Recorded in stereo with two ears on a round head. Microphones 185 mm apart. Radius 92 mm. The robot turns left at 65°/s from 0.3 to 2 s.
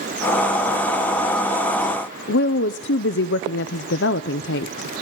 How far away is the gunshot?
I don't hear a gunshot.